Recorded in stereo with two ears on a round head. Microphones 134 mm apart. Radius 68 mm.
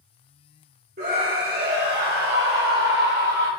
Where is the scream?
70° right (ahead or behind), 2 m; by 3.5 s 60° right (ahead or behind), 1.5 m.